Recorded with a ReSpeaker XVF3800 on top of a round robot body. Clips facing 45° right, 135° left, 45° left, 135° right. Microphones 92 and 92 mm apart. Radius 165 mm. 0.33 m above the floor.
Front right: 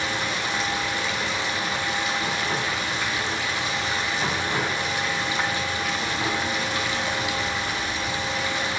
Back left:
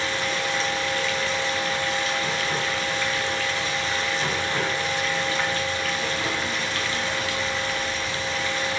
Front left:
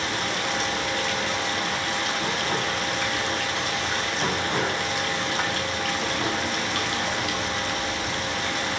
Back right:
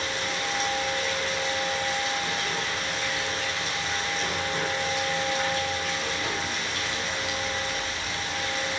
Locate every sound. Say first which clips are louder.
0.0 s running water: back left 1 dB, front left 3 dB; 25° left, 3.5 m